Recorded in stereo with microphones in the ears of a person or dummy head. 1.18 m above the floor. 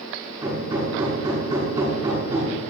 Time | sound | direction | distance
0.4 | hammering | 25° right (ahead or behind) | 6 m